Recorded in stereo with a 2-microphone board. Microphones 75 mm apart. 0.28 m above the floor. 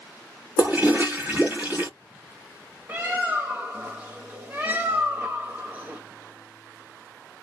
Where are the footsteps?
No footsteps in this recording.